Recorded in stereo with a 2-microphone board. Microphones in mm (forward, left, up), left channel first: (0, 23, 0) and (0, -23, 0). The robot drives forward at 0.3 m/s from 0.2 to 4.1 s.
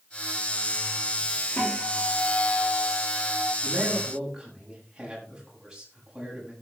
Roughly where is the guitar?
Left.